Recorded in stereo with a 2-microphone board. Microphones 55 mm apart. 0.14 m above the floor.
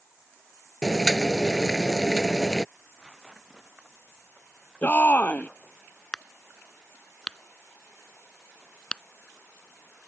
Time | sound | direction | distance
0.8 | boiling | 10° left (ahead or behind) | ?
2.8 | tearing paper | 15° right (ahead or behind) | ?
4.8 | a shout | 30° left (ahead or behind) | ?
6.1 | a crack | 15° left (ahead or behind) | ?